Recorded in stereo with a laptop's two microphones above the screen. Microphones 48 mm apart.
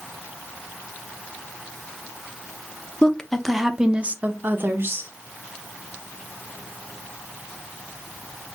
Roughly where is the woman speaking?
Centre.